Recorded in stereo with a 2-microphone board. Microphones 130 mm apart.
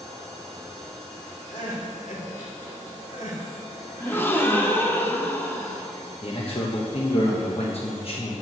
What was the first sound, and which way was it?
Crying, 70° left (ahead or behind).